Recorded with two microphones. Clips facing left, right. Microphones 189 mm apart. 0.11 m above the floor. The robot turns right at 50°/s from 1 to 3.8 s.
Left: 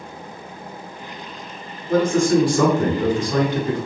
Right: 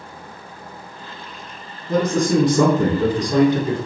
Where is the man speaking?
20° right (ahead or behind), 1.2 m; by 3.8 s 10° right (ahead or behind), 1.2 m.